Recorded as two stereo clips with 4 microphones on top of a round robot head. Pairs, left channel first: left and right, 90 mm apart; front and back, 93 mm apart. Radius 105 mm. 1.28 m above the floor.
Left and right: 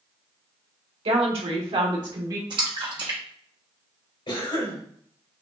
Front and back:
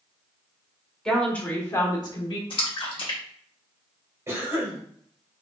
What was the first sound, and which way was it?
A woman speaking, 85° right.